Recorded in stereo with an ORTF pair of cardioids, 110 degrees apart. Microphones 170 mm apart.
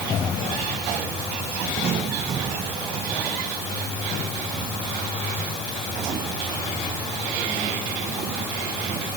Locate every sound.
Only background noise.